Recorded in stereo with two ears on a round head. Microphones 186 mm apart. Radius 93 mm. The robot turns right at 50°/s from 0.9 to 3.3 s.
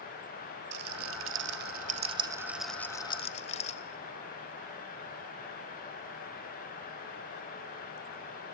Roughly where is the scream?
I don't hear a scream.